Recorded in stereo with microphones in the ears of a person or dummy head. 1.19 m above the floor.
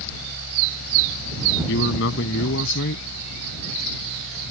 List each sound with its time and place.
0.0 s a fan: 75° left (ahead or behind)
1.7 s a man speaking: 70° left (ahead or behind)